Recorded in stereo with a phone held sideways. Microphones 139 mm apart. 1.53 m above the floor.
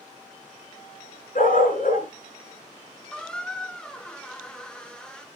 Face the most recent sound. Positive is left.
turn(degrees=5)  # may be behind; listen again after turning